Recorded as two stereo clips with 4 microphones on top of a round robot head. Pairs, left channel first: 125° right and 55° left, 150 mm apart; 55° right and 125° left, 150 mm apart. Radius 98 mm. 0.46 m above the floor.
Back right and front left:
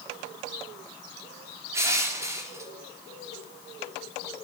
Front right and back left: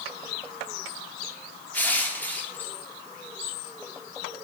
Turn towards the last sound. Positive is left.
turn(degrees=10)